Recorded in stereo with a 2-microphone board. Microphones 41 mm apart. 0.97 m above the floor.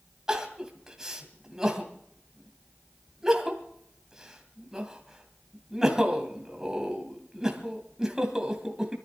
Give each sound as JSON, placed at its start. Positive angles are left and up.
{"t": 0.3, "sound": "crying", "side_deg": -15, "distance_m": 2.5}